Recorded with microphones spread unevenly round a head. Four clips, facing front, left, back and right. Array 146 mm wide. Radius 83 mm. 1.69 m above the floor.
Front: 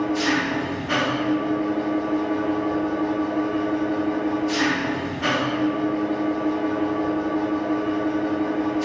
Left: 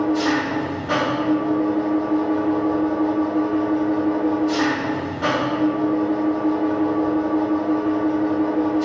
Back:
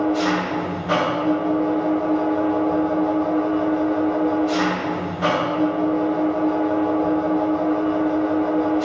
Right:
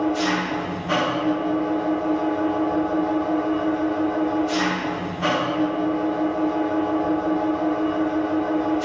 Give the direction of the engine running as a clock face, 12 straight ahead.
6 o'clock.